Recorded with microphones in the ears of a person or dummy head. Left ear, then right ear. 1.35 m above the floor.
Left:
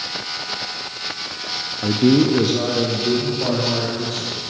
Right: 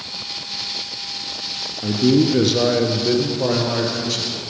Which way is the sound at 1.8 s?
45° left (ahead or behind).